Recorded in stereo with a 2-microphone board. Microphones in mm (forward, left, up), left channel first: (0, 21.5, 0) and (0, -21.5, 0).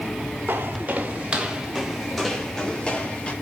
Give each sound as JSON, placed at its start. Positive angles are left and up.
{"t": 0.5, "sound": "footsteps", "side_deg": -50, "distance_m": 2.5}